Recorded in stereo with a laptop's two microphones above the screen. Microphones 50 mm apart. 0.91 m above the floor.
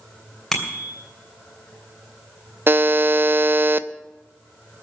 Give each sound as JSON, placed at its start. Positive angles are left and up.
{"t": 0.5, "sound": "a bicycle bell", "side_deg": 0, "distance_m": 3.0}
{"t": 2.7, "sound": "a buzzer", "side_deg": -45, "distance_m": 0.7}